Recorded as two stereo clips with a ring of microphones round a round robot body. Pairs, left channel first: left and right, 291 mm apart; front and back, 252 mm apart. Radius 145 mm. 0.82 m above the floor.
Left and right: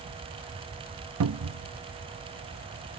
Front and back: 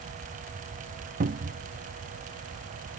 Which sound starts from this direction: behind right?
A cupboard door, at 1.2 s.